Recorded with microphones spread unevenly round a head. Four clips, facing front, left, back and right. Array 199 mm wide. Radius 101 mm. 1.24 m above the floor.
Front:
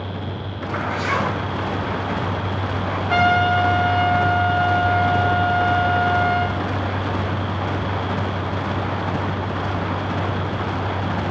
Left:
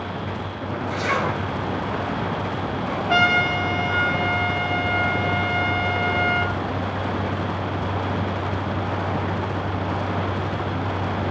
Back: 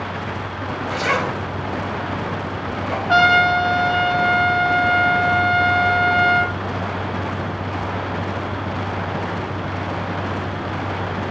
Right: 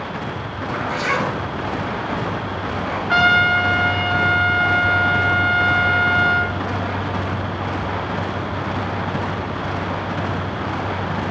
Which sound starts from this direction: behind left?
A trumpet, at 3.1 s.